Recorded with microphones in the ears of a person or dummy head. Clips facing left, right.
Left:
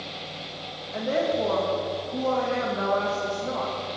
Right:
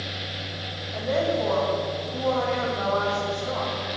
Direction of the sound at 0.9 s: 40° left (ahead or behind).